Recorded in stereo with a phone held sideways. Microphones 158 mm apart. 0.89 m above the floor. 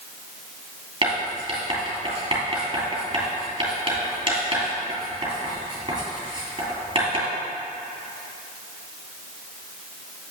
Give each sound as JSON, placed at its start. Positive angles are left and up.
{"t": 1.0, "sound": "writing", "side_deg": -35, "distance_m": 3.0}